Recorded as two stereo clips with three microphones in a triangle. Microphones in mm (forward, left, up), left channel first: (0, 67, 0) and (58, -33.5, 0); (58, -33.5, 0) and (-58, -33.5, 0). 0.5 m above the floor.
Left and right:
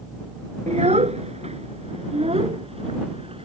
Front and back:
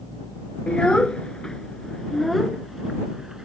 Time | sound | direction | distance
0.7 | a child speaking | 80° right | ?